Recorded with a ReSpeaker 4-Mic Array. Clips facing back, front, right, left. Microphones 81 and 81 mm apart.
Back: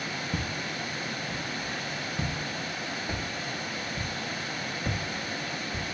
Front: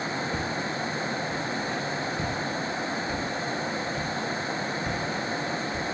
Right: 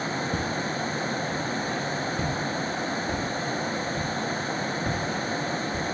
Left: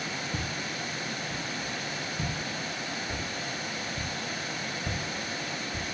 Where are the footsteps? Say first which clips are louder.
Front 4 dB, right 7 dB; 125° right, 4 m.